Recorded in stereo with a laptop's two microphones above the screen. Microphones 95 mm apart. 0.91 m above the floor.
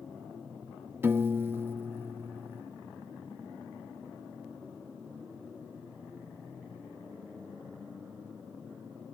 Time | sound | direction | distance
1.0 | a piano | 25° right (ahead or behind) | ?